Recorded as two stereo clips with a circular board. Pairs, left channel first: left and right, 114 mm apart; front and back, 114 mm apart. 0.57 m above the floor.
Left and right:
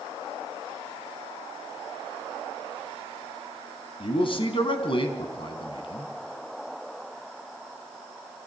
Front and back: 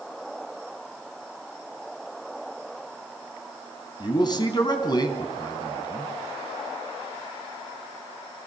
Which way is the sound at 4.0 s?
50° left.